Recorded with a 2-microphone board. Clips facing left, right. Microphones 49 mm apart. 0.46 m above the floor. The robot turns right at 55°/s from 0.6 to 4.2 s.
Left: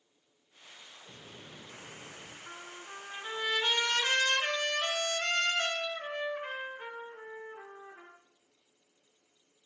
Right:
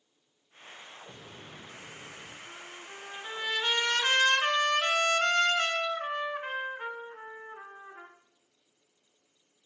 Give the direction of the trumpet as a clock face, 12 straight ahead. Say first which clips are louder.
Even; 8 o'clock.